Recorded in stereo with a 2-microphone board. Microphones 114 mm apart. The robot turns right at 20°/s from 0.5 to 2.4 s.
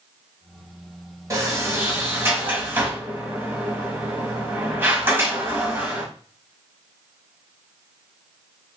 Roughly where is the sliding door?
Right.